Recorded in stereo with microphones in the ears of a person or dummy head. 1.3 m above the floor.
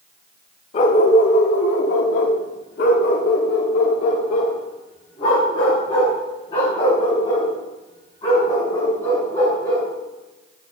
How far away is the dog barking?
About 1.2 m.